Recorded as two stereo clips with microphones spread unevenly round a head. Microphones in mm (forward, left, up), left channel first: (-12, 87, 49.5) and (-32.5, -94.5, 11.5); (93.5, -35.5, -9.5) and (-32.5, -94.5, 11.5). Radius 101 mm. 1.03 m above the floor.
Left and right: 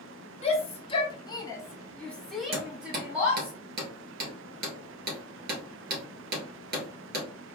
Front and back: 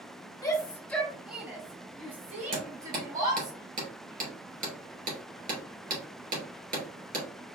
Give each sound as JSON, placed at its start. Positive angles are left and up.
{"t": 0.4, "sound": "a shout", "azimuth_deg": 35, "distance_m": 0.9}
{"t": 2.5, "sound": "hammering", "azimuth_deg": -135, "distance_m": 2.5}